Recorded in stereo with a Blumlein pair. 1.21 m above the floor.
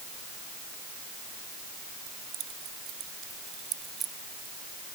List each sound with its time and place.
2.1 s keys jangling: 45° right; by 5.0 s 10° right